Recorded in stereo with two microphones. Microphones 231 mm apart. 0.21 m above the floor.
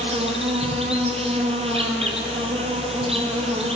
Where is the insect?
25° right (ahead or behind), 1.6 m.